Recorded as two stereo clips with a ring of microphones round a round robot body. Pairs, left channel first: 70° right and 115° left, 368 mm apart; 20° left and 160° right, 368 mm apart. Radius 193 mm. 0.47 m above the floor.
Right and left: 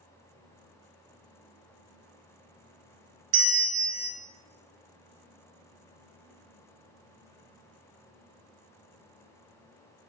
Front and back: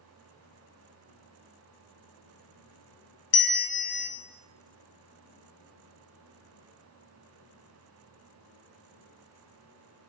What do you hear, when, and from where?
3.3 s a bell: 55° left, 0.7 m